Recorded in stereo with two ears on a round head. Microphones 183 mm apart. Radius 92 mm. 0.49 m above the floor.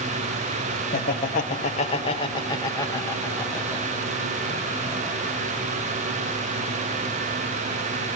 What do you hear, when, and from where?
0.9 s laughter: 50° left (ahead or behind), 1.6 m; by 5.4 s 5° right (ahead or behind), 3 m